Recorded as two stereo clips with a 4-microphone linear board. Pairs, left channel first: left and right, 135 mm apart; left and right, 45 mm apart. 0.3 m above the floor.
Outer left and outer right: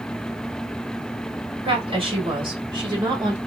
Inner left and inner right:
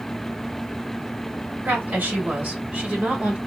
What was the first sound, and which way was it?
A woman speaking, 45° right (ahead or behind).